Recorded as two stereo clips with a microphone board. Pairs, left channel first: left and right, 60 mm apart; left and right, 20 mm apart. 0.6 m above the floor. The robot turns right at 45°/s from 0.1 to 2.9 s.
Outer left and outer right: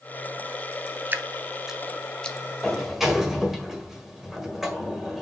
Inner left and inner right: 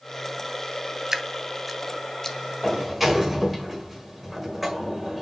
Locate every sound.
1.1 s dripping: 30° right (ahead or behind), 0.6 m; by 2.4 s 20° left (ahead or behind), 0.6 m
2.6 s a sliding door: 5° left (ahead or behind), 1.6 m; by 5.2 s 5° right (ahead or behind), 1.6 m